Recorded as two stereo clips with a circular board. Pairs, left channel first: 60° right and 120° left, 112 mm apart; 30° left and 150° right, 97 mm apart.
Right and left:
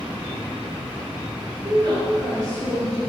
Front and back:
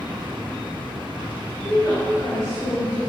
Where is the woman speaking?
85° left, 2.5 m; by 3.0 s 65° left, 4 m.